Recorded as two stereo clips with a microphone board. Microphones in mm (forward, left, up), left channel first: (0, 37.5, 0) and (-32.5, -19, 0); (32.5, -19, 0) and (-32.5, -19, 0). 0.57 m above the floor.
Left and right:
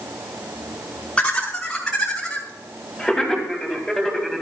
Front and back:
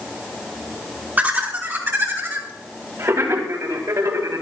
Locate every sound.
1.2 s laughter: 130° left, 1.2 m; by 4.4 s 155° left, 3 m